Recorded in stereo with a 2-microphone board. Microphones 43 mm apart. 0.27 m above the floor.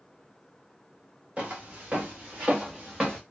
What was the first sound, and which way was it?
Footsteps, 30° right (ahead or behind).